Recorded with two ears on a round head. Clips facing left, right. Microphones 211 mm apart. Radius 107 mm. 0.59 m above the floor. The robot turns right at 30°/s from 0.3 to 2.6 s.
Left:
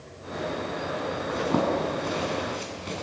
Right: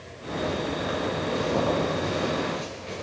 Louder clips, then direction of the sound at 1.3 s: Left 1 dB; 75° left (ahead or behind).